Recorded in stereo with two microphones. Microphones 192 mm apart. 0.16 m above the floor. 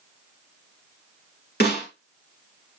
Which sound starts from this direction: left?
A snare drum, at 1.6 s.